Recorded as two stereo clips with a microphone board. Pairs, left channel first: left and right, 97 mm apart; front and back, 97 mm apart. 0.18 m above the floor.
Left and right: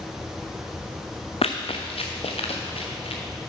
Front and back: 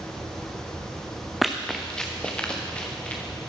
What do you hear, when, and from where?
1.4 s running footsteps: 90° left, 0.9 m; by 3.2 s 75° left, 2.5 m